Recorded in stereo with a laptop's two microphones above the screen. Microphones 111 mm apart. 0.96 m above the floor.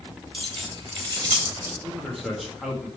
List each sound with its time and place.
0.3 s keys jangling: 55° right (ahead or behind), 2 m; by 1.7 s 30° right (ahead or behind), 2 m
1.8 s a man speaking: centre (ahead or behind), 1.5 m